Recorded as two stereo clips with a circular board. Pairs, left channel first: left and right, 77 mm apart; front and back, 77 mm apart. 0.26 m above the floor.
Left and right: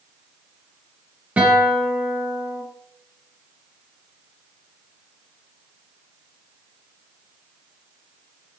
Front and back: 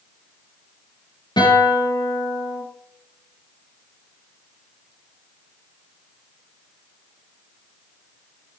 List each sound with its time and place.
1.4 s a guitar: 20° right, 8.5 m